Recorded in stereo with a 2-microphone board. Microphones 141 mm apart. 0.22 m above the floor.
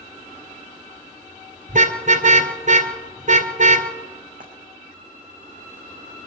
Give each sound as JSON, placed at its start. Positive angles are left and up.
{"t": 1.7, "sound": "a car horn", "side_deg": -70, "distance_m": 2.0}
{"t": 4.4, "sound": "frying", "side_deg": -85, "distance_m": 6.0}